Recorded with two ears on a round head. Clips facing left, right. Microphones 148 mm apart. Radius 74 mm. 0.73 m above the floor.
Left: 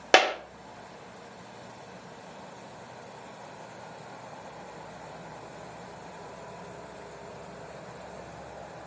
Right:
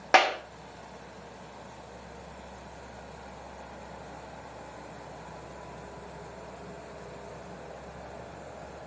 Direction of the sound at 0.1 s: 35° left (ahead or behind).